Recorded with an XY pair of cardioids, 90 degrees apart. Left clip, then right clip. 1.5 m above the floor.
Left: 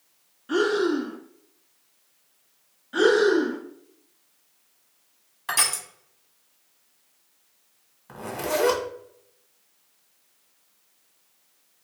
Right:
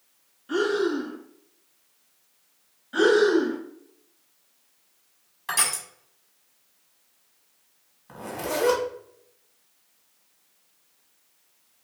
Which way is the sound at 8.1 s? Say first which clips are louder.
Left 2 dB; 25° left.